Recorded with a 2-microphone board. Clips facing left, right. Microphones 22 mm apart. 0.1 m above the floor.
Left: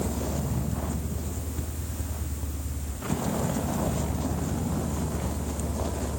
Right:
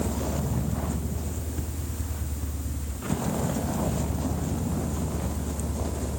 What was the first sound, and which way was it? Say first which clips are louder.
A vehicle: right 1 dB; 5° right (ahead or behind).